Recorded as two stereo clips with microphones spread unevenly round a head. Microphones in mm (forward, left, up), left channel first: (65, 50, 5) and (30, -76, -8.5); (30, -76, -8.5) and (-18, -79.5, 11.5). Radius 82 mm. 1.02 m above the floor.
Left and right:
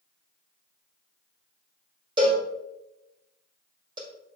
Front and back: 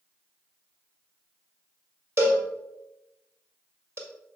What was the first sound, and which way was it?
A cowbell, 170° right.